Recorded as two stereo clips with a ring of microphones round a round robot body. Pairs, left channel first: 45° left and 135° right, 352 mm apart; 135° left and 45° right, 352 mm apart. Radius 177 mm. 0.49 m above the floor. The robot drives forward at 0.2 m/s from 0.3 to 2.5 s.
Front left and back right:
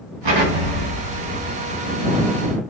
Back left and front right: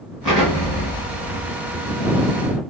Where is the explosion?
130° right, 2.5 m; by 2.6 s 140° right, 3 m.